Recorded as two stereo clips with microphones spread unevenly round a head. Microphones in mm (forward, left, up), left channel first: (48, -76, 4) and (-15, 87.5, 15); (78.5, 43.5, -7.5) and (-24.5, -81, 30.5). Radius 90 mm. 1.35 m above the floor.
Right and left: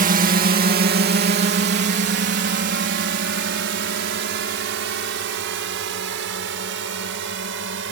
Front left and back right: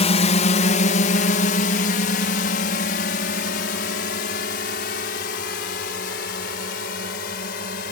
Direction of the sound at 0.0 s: 80° left.